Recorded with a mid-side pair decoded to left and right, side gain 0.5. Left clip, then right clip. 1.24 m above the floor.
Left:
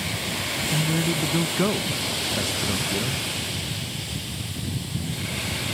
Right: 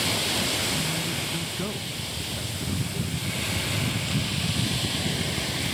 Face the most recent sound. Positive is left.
turn(degrees=60)